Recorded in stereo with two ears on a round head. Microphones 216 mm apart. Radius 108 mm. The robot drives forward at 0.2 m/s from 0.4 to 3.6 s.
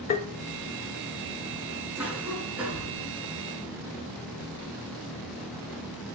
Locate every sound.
0.1 s tapping: 25° left (ahead or behind), 0.7 m
2.0 s a cough: 5° right (ahead or behind), 5.5 m